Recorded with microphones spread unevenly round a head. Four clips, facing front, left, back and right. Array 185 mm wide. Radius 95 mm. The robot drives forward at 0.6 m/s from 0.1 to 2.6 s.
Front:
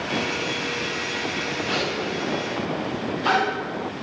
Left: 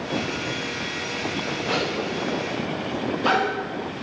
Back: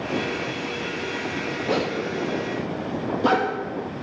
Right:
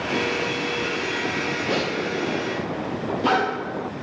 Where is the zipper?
170° right, 1.6 m.